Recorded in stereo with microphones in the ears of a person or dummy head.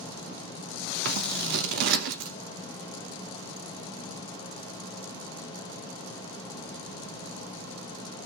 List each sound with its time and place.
1.1 s scissors: 55° right (ahead or behind), 1.0 m